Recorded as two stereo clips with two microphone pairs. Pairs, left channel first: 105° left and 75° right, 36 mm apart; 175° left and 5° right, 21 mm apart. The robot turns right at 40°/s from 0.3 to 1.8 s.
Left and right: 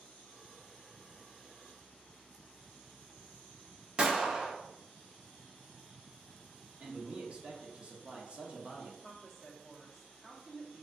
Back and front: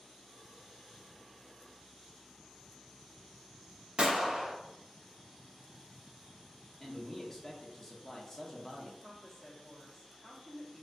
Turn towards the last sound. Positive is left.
turn(degrees=-150)